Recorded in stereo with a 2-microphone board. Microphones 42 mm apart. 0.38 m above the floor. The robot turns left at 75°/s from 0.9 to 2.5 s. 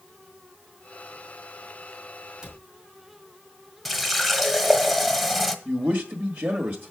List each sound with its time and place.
2.4 s a cupboard door: 10° right (ahead or behind), 3 m; by 2.6 s 15° right (ahead or behind), 3 m
3.9 s a running tap: 5° right (ahead or behind), 1.0 m
5.7 s a man speaking: 45° right (ahead or behind), 1.4 m